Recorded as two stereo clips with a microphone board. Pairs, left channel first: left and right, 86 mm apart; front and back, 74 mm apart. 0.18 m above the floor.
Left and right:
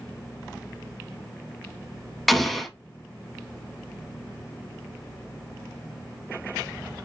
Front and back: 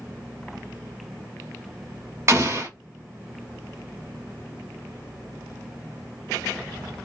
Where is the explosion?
175° left, 0.8 m.